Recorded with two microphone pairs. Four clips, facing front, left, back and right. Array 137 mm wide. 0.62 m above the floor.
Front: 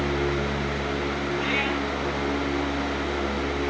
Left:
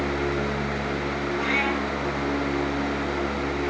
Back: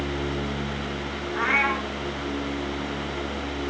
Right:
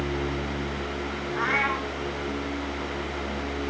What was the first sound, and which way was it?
A cat meowing, 140° right.